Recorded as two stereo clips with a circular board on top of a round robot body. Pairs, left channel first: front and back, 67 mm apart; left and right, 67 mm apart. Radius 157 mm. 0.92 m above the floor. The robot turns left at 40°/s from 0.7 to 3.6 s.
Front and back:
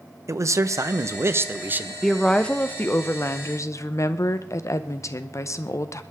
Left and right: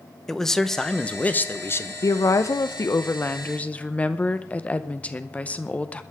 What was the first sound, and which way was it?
A man speaking, 170° left.